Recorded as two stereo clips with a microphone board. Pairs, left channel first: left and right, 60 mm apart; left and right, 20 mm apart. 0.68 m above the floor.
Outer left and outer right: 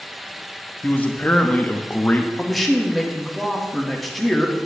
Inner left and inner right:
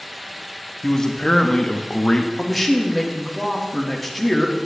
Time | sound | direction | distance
0.8 | a man speaking | 25° left (ahead or behind) | 0.7 m
2.4 | a man speaking | centre (ahead or behind) | 1.2 m